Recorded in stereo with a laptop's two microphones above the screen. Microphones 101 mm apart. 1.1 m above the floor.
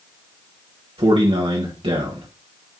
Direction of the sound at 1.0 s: 65° right (ahead or behind).